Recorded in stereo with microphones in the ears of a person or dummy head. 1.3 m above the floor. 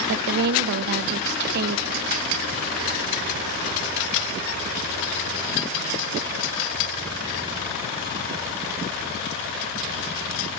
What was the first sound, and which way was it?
A woman speaking, 60° right (ahead or behind).